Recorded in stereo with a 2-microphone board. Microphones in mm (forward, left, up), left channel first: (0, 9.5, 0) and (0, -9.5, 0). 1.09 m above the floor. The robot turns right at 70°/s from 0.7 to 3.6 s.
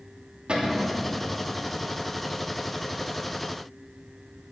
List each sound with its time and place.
0.5 s a cupboard door: 50° right (ahead or behind), 3 m; by 1.0 s 70° right (ahead or behind), 3 m